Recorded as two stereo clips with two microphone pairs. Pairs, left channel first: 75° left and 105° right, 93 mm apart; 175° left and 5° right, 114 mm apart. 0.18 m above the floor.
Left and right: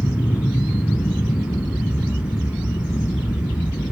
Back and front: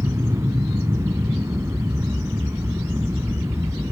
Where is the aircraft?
45° left; by 3.9 s 65° left.